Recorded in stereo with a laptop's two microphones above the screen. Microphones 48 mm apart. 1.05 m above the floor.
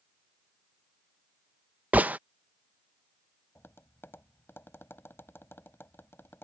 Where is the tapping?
55° left (ahead or behind).